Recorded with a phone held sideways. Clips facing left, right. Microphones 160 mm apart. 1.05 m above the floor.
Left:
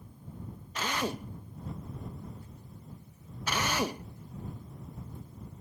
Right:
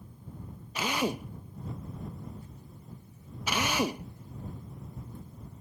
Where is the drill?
10° right (ahead or behind).